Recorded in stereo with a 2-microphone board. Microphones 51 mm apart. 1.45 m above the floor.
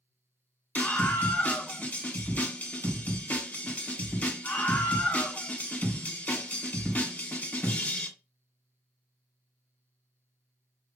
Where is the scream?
35° left (ahead or behind), 1.5 m.